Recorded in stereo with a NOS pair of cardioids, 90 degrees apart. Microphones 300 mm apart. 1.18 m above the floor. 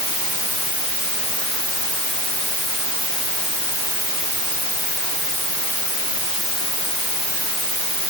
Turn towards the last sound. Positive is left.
No sound to turn to.